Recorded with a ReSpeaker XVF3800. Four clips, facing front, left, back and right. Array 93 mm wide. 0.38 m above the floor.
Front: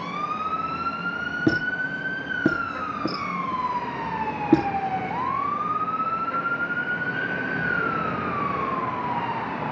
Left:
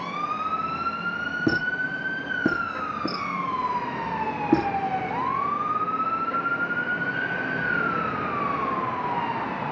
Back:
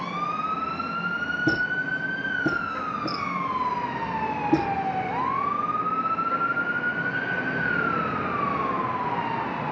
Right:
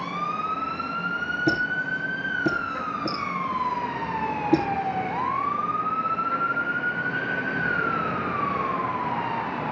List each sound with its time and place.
1.5 s a squeak: 35° left, 3.5 m